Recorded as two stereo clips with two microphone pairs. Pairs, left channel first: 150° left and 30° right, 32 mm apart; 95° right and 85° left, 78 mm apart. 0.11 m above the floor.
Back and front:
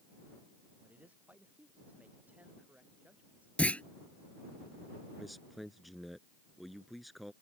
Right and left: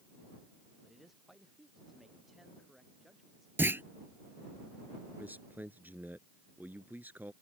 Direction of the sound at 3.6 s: 135° left.